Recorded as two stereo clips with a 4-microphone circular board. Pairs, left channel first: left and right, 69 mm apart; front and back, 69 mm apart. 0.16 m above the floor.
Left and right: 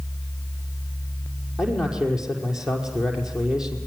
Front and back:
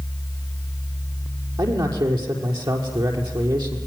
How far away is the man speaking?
About 5.5 m.